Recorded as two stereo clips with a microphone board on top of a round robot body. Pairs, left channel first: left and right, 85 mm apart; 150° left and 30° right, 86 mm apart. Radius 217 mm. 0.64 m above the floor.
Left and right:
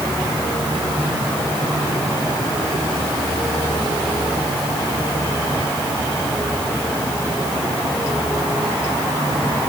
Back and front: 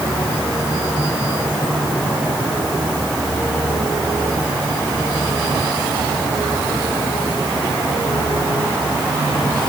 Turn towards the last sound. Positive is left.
No sound to turn to.